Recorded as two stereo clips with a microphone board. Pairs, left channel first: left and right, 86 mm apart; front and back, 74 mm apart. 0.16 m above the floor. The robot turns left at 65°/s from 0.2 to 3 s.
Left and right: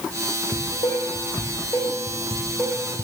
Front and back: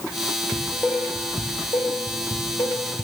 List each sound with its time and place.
0.5 s dishes clattering: 110° left, 4 m; by 3.0 s 55° right, 4 m